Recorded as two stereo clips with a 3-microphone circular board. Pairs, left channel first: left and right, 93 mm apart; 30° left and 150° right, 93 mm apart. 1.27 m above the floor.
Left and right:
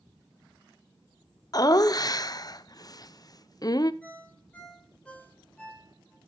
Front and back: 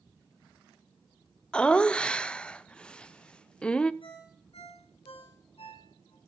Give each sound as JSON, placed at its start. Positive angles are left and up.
{"t": 1.5, "sound": "laughter", "azimuth_deg": 105, "distance_m": 0.5}
{"t": 4.0, "sound": "a ringtone", "azimuth_deg": 15, "distance_m": 3.0}